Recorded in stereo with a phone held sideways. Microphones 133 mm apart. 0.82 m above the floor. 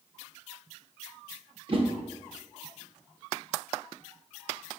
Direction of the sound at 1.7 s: 45° right (ahead or behind).